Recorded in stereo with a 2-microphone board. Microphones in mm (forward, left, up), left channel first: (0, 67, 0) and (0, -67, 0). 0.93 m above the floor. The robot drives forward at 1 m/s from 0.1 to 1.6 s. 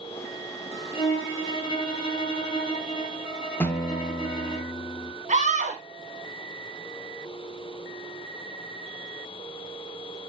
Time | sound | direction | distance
0.9 | a violin | 40° left (ahead or behind) | 3 m
3.6 | a guitar | 15° left (ahead or behind) | 0.9 m
5.3 | a scream | 55° right (ahead or behind) | 1.1 m